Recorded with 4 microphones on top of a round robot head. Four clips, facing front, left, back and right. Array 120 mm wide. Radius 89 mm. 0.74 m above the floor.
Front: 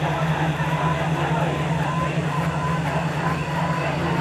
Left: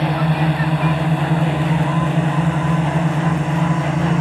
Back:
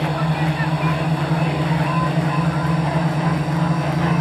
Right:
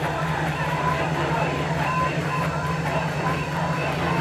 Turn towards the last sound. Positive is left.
turn(degrees=125)